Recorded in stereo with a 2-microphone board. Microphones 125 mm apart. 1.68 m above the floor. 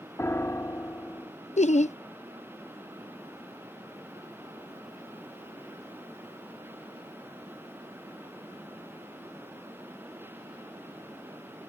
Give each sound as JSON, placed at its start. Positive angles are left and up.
{"t": 0.2, "sound": "a piano", "side_deg": 20}
{"t": 1.6, "sound": "laughter", "side_deg": 65}